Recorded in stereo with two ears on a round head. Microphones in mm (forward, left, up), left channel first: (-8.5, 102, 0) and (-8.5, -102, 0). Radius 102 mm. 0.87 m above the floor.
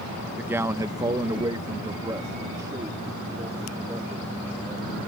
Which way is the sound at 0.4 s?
5° right (ahead or behind).